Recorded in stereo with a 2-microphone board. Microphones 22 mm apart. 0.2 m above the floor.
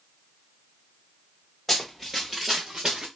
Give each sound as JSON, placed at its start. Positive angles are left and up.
{"t": 1.7, "sound": "running footsteps", "side_deg": 5, "distance_m": 1.8}